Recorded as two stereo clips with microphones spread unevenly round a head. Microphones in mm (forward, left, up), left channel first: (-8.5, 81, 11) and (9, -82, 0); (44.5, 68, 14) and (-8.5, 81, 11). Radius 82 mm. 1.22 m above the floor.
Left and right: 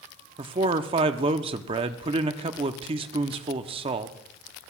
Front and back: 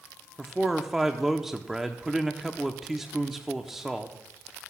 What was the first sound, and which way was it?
A man speaking, 115° right.